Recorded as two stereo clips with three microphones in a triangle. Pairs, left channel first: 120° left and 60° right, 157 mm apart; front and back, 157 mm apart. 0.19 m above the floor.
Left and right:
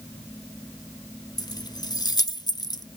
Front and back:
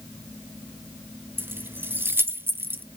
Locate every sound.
1.4 s keys jangling: 125° left, 0.7 m